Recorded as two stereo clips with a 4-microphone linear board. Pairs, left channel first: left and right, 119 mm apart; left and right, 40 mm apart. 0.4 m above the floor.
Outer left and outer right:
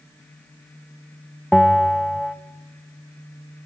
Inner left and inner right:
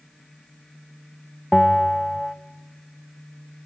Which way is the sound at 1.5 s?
Centre (ahead or behind).